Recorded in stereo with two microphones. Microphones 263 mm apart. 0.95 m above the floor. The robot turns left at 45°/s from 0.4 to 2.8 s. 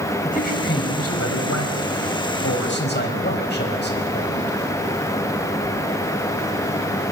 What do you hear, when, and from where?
0.2 s a man speaking: 150° left, 5.5 m; by 4.6 s 40° left, 5.5 m